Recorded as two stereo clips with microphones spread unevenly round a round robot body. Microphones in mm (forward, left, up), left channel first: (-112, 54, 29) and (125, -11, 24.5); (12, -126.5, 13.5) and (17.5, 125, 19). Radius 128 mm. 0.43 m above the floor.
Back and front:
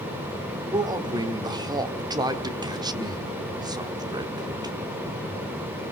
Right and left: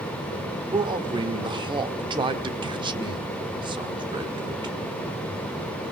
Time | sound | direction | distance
0.7 | a man speaking | 35° left | 1.4 m